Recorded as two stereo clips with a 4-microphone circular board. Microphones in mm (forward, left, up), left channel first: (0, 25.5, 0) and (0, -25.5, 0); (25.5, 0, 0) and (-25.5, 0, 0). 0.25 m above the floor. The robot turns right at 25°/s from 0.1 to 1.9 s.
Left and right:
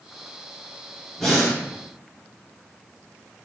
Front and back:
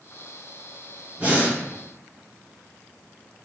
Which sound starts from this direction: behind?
Breathing, at 1.2 s.